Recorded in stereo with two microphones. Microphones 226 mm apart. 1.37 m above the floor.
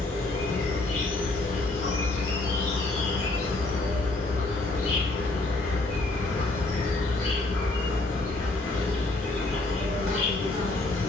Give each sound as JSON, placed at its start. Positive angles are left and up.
{"t": 0.0, "sound": "an insect", "side_deg": 65, "distance_m": 1.2}